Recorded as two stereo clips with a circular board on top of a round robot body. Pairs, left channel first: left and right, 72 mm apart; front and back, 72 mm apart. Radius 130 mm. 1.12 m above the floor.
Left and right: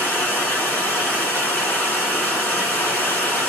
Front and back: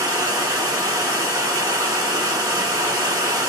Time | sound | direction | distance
0.0 | running water | 150° left | 1.9 m